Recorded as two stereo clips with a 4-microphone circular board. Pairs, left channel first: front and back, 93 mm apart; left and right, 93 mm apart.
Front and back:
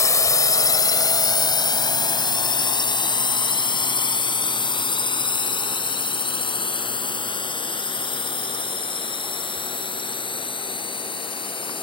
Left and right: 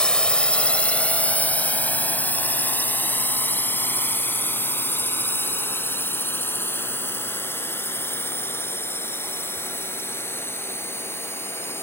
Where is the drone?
15° left; by 11.8 s 25° left.